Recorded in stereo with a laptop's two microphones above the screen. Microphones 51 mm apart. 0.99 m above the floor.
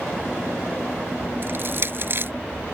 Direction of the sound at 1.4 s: 50° right (ahead or behind).